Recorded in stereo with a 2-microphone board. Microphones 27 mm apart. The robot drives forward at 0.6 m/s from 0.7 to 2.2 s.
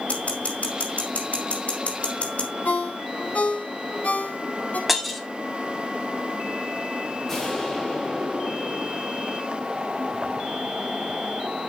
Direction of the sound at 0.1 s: 60° left (ahead or behind).